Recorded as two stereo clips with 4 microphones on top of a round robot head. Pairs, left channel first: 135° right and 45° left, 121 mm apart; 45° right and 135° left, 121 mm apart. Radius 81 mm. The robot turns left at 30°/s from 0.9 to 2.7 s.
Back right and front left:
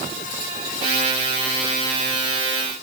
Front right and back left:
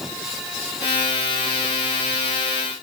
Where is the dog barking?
I don't hear a dog barking.